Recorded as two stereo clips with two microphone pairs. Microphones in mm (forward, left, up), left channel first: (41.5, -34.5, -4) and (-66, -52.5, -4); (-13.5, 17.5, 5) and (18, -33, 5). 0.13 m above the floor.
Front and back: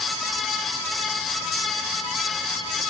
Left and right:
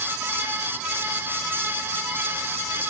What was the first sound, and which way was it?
Only background noise.